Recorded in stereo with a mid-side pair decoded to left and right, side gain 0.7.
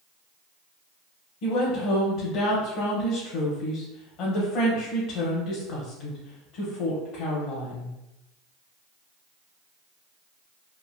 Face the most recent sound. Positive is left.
turn(degrees=60)